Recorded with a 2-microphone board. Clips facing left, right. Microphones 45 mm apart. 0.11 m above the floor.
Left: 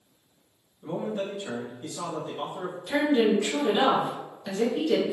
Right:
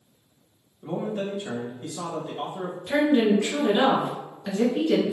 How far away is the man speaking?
About 1.1 m.